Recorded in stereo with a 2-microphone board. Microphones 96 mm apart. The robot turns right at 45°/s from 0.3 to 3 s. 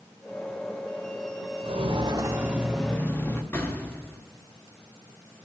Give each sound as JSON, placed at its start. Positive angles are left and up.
{"t": 1.6, "sound": "footsteps", "side_deg": -75, "distance_m": 1.3}
{"t": 3.5, "sound": "an explosion", "side_deg": 25, "distance_m": 1.0}